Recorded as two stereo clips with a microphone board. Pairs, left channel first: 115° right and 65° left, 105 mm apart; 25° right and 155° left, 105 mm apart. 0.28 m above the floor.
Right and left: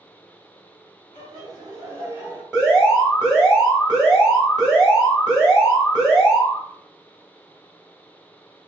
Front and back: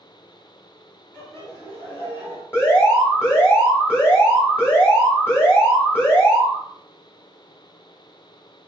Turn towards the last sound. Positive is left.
turn(degrees=-5)